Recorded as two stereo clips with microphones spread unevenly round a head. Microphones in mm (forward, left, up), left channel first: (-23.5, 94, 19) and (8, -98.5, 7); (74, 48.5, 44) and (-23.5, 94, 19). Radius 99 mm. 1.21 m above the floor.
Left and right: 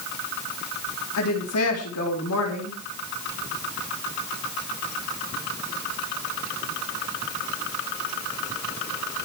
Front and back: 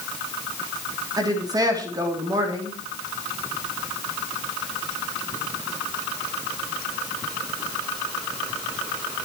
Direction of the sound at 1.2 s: 100° left.